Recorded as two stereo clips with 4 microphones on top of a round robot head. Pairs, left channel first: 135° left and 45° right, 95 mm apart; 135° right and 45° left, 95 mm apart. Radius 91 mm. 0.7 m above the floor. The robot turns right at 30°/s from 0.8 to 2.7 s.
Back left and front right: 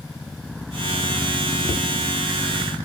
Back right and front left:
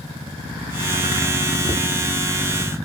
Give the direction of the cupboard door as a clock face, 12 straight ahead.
9 o'clock.